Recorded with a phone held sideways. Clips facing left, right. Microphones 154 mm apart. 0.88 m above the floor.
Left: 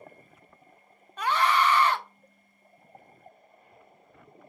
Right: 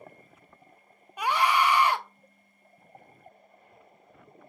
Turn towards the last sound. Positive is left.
turn(degrees=-10)  # may be behind; listen again after turning